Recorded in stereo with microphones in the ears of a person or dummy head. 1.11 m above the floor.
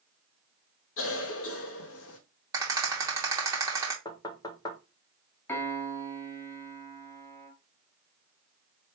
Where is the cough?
70° left (ahead or behind), 1.2 m.